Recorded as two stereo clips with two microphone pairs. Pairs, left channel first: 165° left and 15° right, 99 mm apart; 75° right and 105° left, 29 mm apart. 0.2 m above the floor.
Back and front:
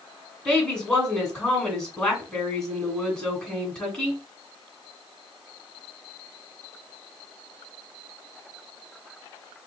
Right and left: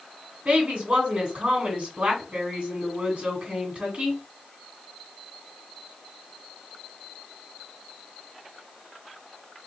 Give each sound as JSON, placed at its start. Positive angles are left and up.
{"t": 0.5, "sound": "a woman speaking", "azimuth_deg": 90, "distance_m": 2.0}